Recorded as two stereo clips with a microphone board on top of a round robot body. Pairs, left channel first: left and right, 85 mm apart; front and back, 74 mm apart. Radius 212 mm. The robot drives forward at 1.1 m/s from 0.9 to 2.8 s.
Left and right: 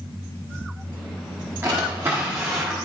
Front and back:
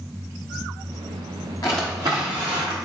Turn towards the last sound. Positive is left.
turn(degrees=-175)